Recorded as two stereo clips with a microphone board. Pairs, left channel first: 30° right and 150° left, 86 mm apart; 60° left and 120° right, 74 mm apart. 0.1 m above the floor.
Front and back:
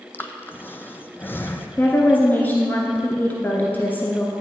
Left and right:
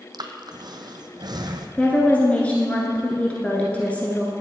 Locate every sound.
0.1 s breathing: 95° right, 0.8 m
1.8 s a woman speaking: 10° left, 1.2 m